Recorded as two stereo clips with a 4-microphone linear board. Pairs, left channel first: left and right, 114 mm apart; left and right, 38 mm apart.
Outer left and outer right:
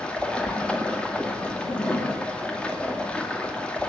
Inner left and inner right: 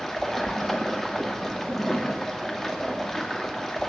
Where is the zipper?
50° left (ahead or behind), 4.5 m.